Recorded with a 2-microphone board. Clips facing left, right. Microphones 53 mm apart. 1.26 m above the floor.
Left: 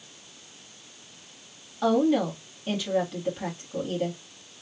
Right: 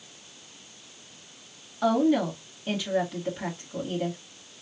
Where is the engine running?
I don't hear an engine running.